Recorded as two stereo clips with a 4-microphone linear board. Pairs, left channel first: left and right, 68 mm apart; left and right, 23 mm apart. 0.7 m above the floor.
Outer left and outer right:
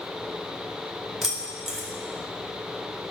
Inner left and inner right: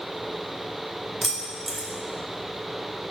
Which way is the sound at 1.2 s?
5° right (ahead or behind).